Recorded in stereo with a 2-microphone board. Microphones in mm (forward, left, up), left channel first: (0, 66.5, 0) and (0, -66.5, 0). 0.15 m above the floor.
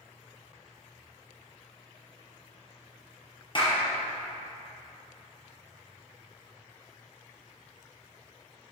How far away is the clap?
About 2.5 m.